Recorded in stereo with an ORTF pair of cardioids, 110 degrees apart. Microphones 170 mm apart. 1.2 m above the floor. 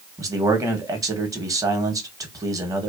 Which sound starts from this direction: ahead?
A man speaking, at 0.2 s.